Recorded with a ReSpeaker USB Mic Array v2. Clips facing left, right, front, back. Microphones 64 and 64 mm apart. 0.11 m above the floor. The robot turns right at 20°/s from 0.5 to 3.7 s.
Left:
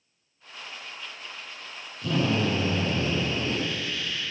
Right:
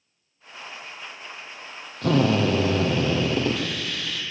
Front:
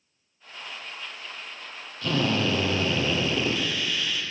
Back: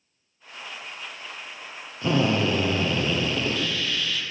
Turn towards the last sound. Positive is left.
turn(degrees=-80)